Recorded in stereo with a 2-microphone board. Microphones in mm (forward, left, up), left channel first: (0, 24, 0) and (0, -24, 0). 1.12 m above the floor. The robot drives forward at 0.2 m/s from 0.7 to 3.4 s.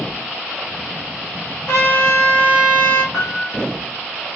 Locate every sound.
1.7 s a trumpet: 80° left, 2.5 m; by 3.0 s 85° left, 2.5 m
3.1 s a piano: 55° left (ahead or behind), 2 m